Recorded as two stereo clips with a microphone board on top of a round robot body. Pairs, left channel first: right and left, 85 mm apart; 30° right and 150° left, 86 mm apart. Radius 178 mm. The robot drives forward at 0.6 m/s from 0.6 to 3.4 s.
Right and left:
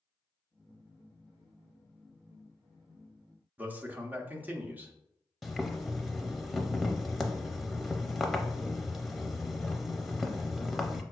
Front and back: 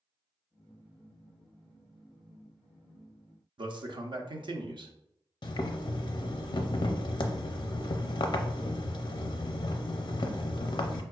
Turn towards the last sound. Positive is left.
turn(degrees=0)